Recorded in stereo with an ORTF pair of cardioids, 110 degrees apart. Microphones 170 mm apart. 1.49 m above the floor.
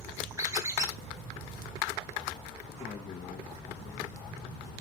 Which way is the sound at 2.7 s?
40° left.